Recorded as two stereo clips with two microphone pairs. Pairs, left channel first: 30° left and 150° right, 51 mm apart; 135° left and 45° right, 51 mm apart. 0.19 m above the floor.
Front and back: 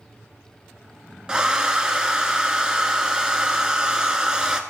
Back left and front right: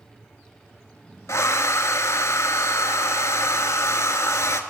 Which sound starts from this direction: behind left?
A hair dryer, at 1.3 s.